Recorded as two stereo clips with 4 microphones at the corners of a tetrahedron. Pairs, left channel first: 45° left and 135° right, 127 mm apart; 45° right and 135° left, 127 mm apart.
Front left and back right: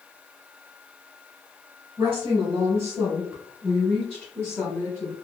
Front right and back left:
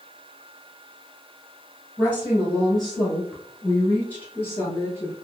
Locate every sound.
2.0 s a woman speaking: 150° right, 1.5 m; by 5.1 s straight ahead, 1.6 m